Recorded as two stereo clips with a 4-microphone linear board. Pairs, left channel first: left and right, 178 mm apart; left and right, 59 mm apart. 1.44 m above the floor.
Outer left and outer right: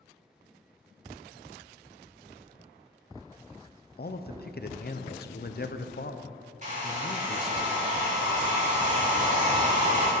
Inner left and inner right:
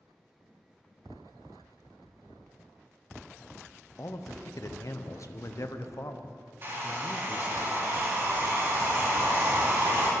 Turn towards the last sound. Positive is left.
turn(degrees=-45)  # may be behind; listen again after turning